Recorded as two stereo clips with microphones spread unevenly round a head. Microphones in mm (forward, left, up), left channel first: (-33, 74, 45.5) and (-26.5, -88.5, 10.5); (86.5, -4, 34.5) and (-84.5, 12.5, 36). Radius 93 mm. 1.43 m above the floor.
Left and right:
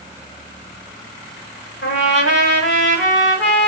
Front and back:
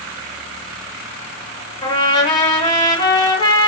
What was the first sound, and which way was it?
A trumpet, 60° left.